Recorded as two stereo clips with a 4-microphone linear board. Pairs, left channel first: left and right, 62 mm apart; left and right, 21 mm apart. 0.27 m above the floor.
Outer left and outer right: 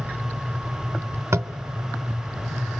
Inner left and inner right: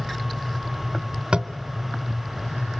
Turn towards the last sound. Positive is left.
turn(degrees=-50)  # may be behind; listen again after turning